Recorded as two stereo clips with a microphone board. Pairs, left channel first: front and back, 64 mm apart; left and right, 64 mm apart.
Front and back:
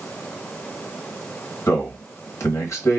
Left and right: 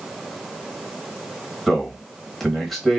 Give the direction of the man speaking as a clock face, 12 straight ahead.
12 o'clock.